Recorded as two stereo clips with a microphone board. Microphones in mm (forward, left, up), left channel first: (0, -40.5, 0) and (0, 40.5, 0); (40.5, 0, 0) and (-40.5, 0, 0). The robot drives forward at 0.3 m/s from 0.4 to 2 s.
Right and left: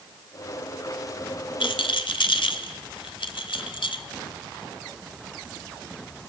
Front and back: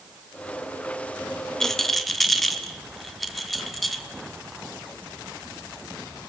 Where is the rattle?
85° right, 1.5 m; by 4.0 s 90° right, 1.5 m.